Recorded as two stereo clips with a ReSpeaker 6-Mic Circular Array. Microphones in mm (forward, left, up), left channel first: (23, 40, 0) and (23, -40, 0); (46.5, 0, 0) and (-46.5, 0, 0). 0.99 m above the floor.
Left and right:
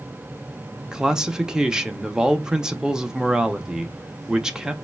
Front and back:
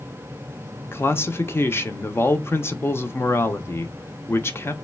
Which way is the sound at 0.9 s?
15° right.